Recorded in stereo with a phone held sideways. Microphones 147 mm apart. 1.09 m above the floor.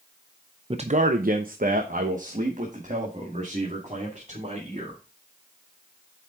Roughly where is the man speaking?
Right.